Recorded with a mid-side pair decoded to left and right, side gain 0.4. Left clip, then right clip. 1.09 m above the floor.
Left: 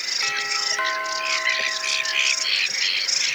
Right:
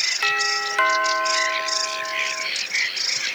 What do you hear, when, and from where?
0.2 s a doorbell: 50° right